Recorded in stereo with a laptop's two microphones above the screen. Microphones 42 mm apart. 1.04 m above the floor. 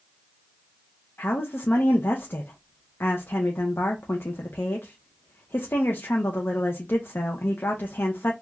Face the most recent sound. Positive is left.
turn(degrees=55)  # may be behind; listen again after turning